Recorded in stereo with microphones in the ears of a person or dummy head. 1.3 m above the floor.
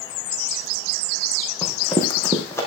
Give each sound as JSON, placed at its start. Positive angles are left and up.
{"t": 1.6, "sound": "running footsteps", "side_deg": 10, "distance_m": 4.5}